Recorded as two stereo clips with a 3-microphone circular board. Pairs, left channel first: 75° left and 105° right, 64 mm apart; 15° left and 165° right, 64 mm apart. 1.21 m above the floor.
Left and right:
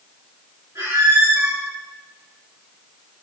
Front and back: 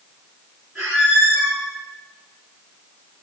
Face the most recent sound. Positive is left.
turn(degrees=-90)